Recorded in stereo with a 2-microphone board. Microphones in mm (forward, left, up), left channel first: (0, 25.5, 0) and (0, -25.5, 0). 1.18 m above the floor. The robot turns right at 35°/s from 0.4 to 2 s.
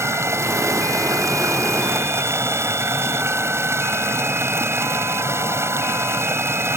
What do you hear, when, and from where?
0.0 s running water: 120° right; by 6.8 s 60° right